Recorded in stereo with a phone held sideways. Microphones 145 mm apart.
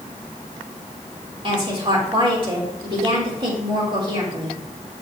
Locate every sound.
1.4 s a woman speaking: 40° right (ahead or behind), 3.5 m